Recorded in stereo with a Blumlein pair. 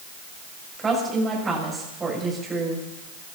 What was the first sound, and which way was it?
A woman speaking, 15° right.